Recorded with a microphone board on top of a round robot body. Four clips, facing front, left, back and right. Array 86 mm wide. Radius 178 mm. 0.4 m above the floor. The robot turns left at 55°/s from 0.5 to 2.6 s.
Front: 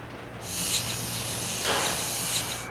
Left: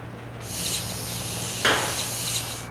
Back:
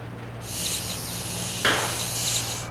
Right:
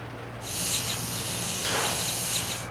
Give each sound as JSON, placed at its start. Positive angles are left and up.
{"t": 1.6, "sound": "a clap", "azimuth_deg": 130, "distance_m": 7.0}